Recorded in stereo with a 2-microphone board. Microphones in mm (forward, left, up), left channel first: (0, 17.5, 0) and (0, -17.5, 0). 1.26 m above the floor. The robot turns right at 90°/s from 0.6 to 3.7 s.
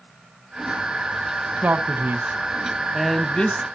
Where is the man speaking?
130° right, 0.9 m; by 3.6 s 50° left, 0.9 m.